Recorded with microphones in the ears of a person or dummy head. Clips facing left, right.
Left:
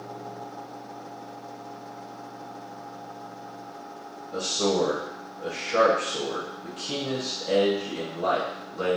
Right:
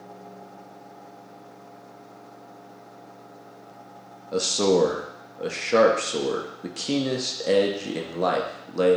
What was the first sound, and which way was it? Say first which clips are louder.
A man speaking: right 5 dB; 70° right (ahead or behind).